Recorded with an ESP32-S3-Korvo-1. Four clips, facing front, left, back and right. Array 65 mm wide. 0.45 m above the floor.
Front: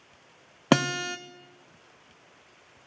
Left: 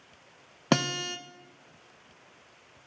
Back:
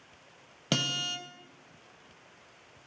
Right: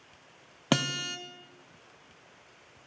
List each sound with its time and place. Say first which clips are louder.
0.7 s a guitar: left 2 dB, front 9 dB; 15° left, 0.5 m